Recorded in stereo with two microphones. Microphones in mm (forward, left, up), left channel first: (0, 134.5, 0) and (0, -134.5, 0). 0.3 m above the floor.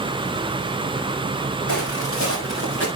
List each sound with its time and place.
1.7 s footsteps: 50° left (ahead or behind), 8.5 m; by 2.9 s 40° left (ahead or behind), 8 m